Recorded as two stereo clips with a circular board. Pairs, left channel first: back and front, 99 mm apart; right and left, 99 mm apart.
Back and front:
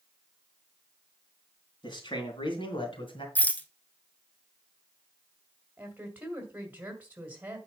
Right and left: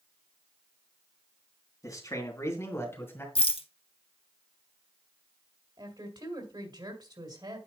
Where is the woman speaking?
70° left, 2 m.